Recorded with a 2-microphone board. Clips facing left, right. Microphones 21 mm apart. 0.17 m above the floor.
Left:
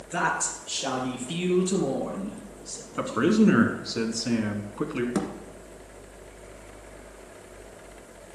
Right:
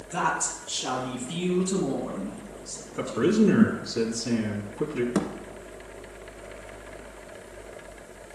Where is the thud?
10° right (ahead or behind), 1.3 m.